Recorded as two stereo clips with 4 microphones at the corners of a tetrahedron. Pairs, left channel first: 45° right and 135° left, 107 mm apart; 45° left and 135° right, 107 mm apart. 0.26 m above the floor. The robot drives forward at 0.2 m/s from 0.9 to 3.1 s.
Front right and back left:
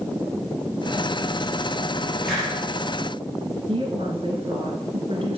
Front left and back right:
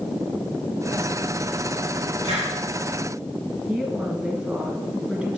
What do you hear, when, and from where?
2.2 s a hiss: 135° right, 4.5 m; by 2.5 s 140° right, 4.5 m
3.7 s a woman speaking: 150° left, 2 m